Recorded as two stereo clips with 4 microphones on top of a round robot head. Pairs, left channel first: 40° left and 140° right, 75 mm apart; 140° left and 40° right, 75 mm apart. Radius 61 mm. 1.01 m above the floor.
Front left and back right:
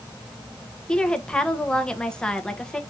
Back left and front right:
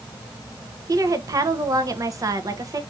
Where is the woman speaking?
40° right, 0.8 m.